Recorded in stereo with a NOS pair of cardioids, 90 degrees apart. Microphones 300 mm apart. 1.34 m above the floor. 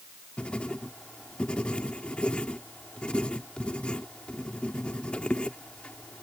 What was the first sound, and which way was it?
Writing, 5° left.